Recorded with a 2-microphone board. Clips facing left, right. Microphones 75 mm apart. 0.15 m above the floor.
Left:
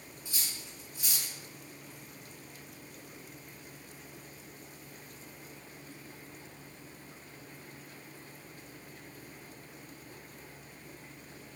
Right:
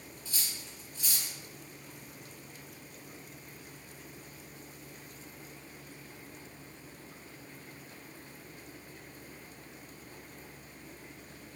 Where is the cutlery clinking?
15° left (ahead or behind), 0.8 m.